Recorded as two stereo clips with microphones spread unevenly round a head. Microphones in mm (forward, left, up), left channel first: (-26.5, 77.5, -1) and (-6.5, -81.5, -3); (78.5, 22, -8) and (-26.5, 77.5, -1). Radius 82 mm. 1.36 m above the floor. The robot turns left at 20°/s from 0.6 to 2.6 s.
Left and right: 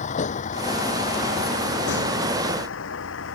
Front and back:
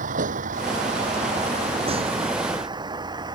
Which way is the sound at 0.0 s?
145° left.